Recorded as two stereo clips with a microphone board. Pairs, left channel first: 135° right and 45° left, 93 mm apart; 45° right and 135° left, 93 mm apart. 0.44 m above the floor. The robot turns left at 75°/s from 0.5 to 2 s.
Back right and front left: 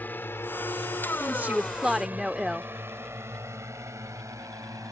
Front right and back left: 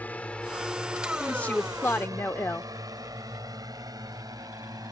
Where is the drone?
95° right; by 4.9 s 95° left.